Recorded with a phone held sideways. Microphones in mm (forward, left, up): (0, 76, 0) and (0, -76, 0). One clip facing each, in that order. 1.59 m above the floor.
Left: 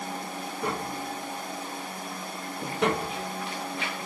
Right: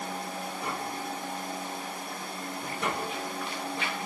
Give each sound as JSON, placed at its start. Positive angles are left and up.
{"t": 0.6, "sound": "tapping", "side_deg": 85, "distance_m": 2.5}